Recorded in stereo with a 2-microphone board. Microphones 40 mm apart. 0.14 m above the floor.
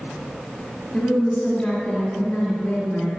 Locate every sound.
0.9 s a woman speaking: 10° left (ahead or behind), 1.6 m